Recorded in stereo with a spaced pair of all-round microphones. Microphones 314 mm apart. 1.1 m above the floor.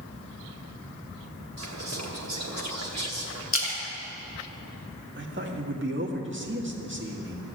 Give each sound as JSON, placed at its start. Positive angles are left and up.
{"t": 1.6, "sound": "whispering", "side_deg": -60, "distance_m": 1.0}
{"t": 3.5, "sound": "a splash", "side_deg": 45, "distance_m": 2.0}
{"t": 5.2, "sound": "a man speaking", "side_deg": -40, "distance_m": 1.7}